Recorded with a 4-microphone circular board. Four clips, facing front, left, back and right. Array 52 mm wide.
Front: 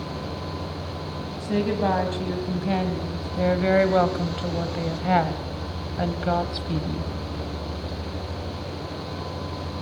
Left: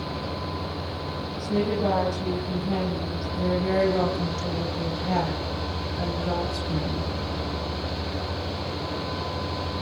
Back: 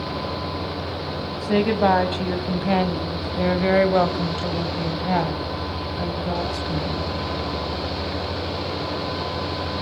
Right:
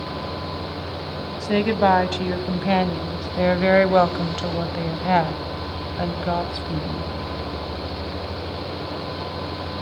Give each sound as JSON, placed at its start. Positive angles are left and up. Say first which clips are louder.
{"t": 1.4, "sound": "a woman speaking", "louder": "right 6 dB, back 5 dB", "azimuth_deg": -115, "distance_m": 3.0}